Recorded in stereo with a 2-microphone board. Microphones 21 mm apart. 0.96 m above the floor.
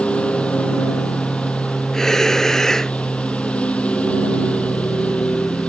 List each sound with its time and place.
0.0 s a lawn mower: 65° left (ahead or behind)
1.9 s breathing: 25° left (ahead or behind)